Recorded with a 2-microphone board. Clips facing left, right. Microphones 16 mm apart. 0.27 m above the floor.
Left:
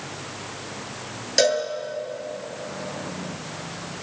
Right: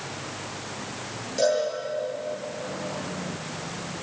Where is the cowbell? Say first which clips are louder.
Left 3 dB; 60° left (ahead or behind), 6.5 m.